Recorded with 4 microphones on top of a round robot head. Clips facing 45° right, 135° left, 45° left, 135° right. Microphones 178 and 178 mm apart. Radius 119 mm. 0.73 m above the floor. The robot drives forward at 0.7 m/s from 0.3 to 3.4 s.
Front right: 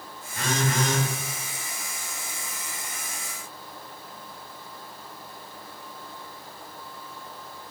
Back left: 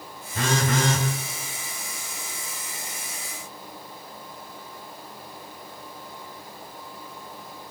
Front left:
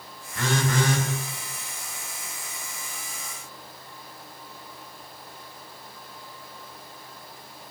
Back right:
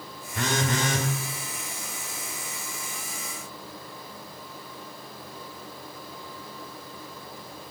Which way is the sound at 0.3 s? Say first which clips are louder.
Back left 2 dB, front left 2 dB; 150° left.